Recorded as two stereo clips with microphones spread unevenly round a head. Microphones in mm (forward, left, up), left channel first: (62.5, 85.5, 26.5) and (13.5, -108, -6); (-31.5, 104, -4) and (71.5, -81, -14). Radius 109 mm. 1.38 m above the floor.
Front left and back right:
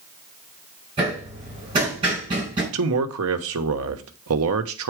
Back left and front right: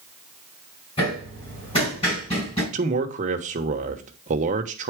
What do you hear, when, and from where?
1.0 s hammering: 175° right, 4.5 m
2.7 s a man speaking: 120° right, 1.0 m